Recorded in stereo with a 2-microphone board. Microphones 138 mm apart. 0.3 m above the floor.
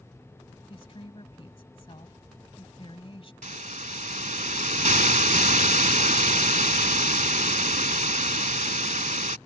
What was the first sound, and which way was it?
A woman speaking, 45° left (ahead or behind).